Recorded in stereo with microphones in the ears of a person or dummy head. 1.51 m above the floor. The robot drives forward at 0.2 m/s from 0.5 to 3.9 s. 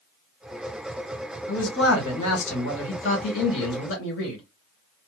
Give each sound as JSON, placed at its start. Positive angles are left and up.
{"t": 1.5, "sound": "a man speaking", "side_deg": 85, "distance_m": 1.7}